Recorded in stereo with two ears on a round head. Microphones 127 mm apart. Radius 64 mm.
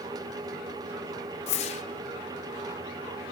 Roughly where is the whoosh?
Left.